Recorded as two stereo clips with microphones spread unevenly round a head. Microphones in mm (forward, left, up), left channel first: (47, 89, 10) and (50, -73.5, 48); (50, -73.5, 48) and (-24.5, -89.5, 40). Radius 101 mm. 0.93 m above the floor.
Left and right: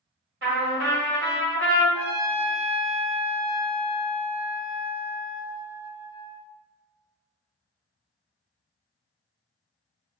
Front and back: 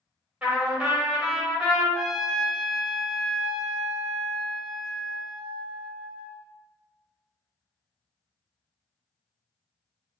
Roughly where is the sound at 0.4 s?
Right.